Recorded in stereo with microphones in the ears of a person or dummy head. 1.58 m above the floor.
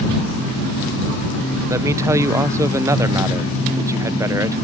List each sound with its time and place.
1.7 s a man speaking: 15° right (ahead or behind)